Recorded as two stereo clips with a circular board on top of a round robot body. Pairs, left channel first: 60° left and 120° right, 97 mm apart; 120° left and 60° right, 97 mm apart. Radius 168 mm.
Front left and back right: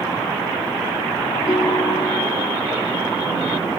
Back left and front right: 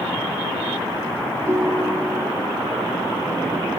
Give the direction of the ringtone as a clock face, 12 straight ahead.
12 o'clock.